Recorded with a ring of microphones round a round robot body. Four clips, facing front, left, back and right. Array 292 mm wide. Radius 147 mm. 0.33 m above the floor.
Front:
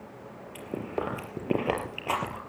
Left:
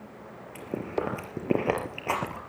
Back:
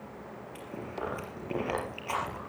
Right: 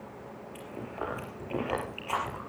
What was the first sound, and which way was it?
Chewing, 60° left.